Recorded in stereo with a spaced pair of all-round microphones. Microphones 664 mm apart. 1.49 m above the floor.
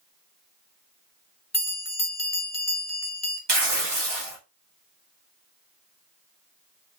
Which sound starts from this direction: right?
Tearing paper, at 3.5 s.